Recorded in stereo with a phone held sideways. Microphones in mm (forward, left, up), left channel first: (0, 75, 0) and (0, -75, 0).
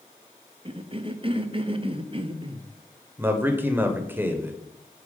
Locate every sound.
0.7 s a cough: 35° right (ahead or behind), 0.6 m
3.2 s a man speaking: 15° right (ahead or behind), 0.9 m